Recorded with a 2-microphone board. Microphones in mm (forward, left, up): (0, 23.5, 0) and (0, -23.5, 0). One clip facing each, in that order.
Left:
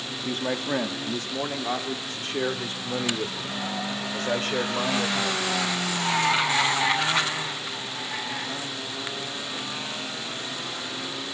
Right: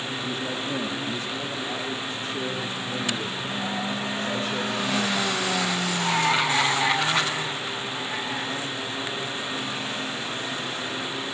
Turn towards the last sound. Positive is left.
turn(degrees=65)  # may be behind; listen again after turning